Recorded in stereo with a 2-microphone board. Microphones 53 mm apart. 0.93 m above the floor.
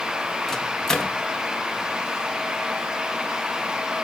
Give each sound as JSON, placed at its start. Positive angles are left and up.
{"t": 0.5, "sound": "a microwave", "side_deg": 15, "distance_m": 1.1}